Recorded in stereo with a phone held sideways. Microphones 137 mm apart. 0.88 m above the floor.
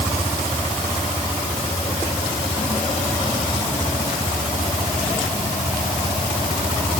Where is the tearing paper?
I don't hear tearing paper.